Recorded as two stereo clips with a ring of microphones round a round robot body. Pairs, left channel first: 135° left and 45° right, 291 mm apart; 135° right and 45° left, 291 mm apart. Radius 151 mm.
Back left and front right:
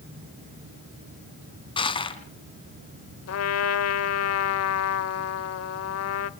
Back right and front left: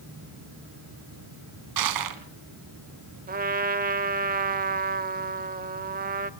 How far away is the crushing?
About 2.5 m.